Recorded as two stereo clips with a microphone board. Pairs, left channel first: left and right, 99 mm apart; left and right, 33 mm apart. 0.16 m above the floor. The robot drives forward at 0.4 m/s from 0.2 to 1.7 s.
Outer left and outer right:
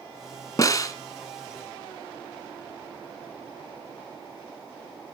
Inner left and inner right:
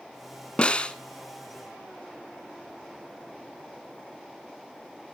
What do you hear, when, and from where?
0.6 s a snare drum: 35° left (ahead or behind), 1.0 m